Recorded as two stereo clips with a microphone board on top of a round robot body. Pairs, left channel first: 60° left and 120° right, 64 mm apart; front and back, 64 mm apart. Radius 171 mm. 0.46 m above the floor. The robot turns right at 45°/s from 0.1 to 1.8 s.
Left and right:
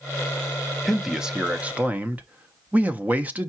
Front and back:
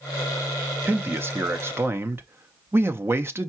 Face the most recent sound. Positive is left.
turn(degrees=-170)